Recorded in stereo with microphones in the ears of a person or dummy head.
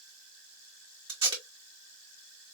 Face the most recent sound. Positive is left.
turn(degrees=-25)  # may be behind; listen again after turning